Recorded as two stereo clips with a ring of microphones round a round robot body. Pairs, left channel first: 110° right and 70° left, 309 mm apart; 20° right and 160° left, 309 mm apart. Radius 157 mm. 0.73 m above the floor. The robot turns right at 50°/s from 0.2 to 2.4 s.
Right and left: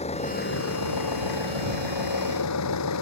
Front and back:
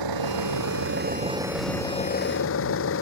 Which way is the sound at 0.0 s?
175° left.